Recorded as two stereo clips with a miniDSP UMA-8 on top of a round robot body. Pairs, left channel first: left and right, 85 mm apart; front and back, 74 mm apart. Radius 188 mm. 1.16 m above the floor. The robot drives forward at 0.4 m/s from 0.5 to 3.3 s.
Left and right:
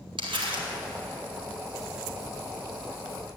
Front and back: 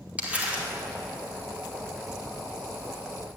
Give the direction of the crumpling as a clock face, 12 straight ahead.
4 o'clock.